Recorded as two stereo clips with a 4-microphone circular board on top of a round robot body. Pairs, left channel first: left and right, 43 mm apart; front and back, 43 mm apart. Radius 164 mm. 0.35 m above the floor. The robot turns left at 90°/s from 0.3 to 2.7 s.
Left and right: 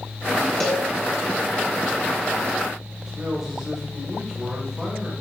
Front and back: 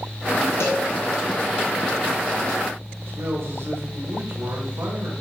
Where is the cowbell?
15° left, 2 m; by 0.9 s 10° right, 2 m.